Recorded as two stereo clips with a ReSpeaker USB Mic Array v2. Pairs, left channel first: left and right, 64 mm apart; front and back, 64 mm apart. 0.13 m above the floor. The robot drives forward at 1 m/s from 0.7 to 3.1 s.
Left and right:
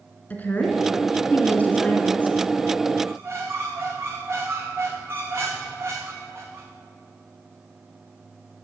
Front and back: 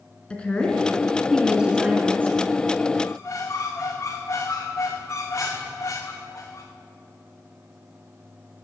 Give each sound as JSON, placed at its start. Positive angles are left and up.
{"t": 0.3, "sound": "a woman speaking", "azimuth_deg": 60, "distance_m": 1.9}
{"t": 3.0, "sound": "a squeak", "azimuth_deg": -45, "distance_m": 1.9}